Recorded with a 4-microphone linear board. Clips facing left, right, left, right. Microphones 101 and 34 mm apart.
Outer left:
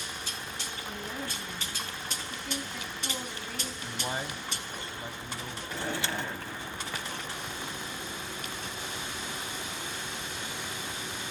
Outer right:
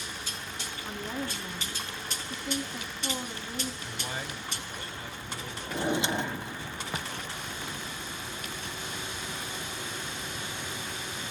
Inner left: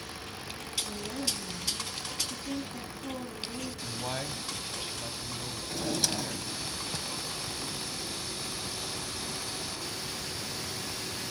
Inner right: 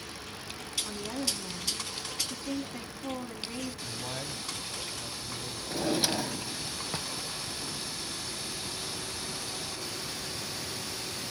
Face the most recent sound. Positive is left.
turn(degrees=-20)  # may be behind; listen again after turning